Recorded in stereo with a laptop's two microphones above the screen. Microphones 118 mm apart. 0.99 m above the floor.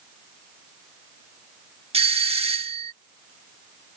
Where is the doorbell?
55° right (ahead or behind).